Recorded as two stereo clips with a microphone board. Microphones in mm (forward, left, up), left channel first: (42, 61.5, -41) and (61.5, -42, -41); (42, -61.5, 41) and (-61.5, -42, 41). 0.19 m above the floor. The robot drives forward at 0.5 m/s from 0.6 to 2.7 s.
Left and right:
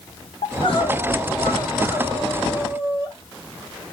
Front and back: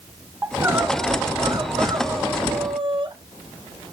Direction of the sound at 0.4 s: 105° left.